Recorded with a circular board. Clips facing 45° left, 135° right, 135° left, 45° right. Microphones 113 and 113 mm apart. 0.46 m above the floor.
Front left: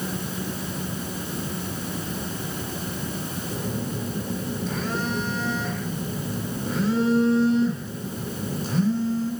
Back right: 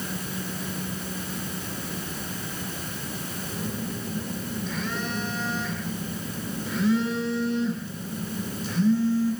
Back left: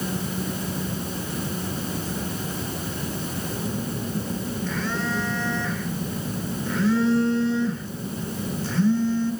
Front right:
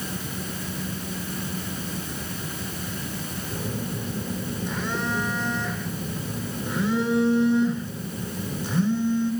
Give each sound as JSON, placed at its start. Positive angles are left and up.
{"t": 3.5, "sound": "a phone buzzing", "azimuth_deg": 20, "distance_m": 1.7}